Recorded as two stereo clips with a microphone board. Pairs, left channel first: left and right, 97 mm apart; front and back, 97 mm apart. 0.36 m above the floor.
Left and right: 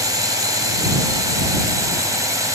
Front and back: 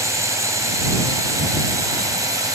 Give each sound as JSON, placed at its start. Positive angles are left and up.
{"t": 0.0, "sound": "a drone", "azimuth_deg": -130}